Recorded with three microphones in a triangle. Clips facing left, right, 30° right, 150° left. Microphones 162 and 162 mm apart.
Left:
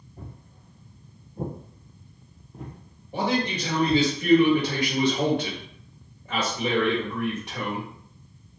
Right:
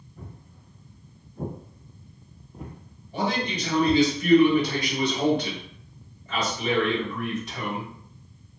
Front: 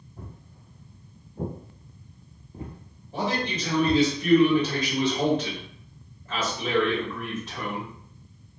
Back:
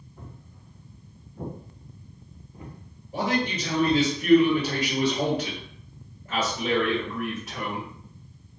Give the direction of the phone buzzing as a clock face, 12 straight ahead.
No phone buzzing in this recording.